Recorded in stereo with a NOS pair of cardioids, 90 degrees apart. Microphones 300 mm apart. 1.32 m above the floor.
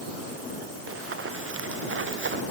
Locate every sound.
0.9 s running footsteps: 50° right; by 2.4 s 40° right